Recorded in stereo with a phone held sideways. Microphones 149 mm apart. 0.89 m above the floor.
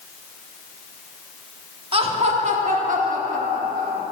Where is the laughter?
40° right (ahead or behind), 1.4 m; by 4.0 s 75° right (ahead or behind), 2 m.